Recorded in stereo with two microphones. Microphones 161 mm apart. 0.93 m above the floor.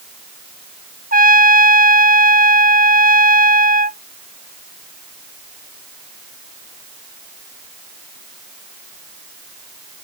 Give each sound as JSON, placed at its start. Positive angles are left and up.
{"t": 1.1, "sound": "a trumpet", "side_deg": -60}